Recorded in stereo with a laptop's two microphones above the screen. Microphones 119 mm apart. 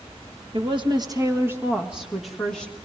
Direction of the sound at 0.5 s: 50° right (ahead or behind).